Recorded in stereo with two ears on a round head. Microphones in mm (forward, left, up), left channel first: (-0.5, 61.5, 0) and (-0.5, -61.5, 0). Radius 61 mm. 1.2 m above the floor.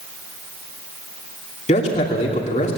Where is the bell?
No bell in this recording.